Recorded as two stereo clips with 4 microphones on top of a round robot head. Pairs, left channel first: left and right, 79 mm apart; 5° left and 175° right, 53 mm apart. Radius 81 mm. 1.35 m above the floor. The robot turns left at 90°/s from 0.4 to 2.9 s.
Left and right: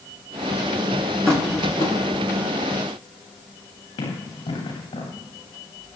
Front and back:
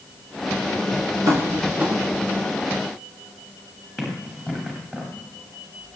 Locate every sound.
1.3 s tapping: 170° left, 5 m; by 2.0 s 110° left, 5 m
4.0 s running footsteps: 85° left, 9 m